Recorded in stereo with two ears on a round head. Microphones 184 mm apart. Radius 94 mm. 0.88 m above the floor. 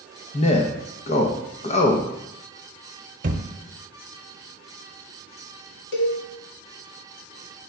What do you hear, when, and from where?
0.3 s a man speaking: 30° left (ahead or behind), 0.6 m
3.2 s a thud: 40° right (ahead or behind), 0.8 m
5.9 s a cowbell: 60° left (ahead or behind), 1.5 m